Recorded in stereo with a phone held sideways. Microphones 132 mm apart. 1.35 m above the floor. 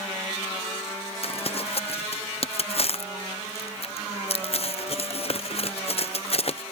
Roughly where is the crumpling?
Left.